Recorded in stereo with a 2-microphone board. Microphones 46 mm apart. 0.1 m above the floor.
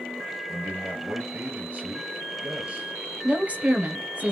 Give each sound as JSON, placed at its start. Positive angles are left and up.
{"t": 0.5, "sound": "a man speaking", "side_deg": -30, "distance_m": 1.9}
{"t": 3.2, "sound": "a woman speaking", "side_deg": -30, "distance_m": 1.9}